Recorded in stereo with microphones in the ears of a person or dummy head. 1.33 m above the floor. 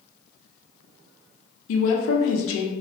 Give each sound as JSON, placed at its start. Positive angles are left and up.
{"t": 1.7, "sound": "a woman speaking", "side_deg": 70, "distance_m": 0.7}